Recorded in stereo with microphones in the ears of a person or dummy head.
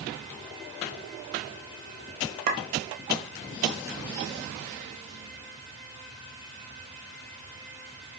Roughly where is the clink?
Right.